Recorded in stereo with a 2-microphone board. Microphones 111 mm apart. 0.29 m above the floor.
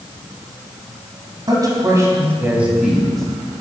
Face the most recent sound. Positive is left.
turn(degrees=5)  # may be behind; listen again after turning